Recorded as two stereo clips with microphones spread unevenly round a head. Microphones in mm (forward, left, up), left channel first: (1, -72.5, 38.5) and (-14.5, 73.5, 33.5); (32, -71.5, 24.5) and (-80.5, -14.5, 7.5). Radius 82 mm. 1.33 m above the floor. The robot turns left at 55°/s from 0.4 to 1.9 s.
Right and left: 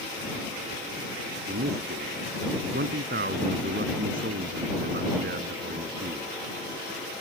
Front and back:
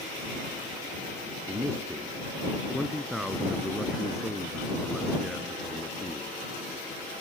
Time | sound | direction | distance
1.5 | a man speaking | 85° left | ?